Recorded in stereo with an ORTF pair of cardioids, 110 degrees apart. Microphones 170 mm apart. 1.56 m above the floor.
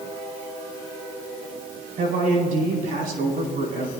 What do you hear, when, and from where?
2.0 s a man speaking: 60° right, 4.5 m